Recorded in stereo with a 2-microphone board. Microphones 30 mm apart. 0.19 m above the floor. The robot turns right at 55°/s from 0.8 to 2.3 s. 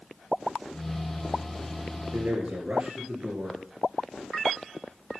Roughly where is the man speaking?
Right.